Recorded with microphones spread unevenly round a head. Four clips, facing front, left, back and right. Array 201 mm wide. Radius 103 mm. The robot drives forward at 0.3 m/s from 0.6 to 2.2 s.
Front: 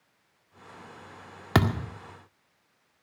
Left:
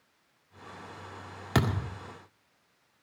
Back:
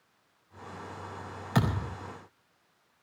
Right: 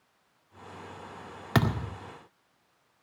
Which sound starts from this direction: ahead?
A thud, at 1.6 s.